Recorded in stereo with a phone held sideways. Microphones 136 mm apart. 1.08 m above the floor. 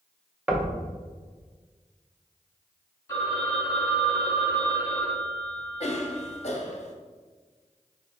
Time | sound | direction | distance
0.5 | knocking | 10° right (ahead or behind) | 0.7 m
3.1 | a phone ringing | 25° left (ahead or behind) | 1.1 m
5.8 | a cough | 55° left (ahead or behind) | 0.7 m